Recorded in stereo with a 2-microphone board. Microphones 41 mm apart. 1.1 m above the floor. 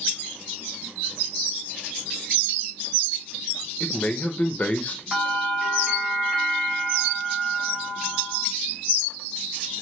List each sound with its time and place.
3.8 s a man speaking: 35° left (ahead or behind), 0.7 m
5.1 s a bell: 15° right (ahead or behind), 1.4 m